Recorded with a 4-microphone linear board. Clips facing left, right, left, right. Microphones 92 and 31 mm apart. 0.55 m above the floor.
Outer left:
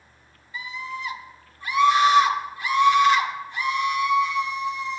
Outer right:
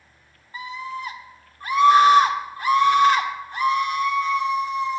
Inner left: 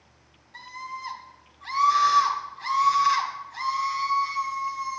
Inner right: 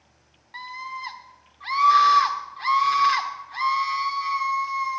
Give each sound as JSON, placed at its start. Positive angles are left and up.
{"t": 0.5, "sound": "a scream", "side_deg": -45, "distance_m": 1.5}